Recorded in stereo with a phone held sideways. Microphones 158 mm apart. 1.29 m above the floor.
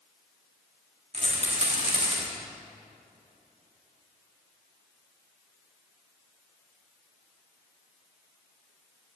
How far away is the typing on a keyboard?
I don't hear typing on a keyboard.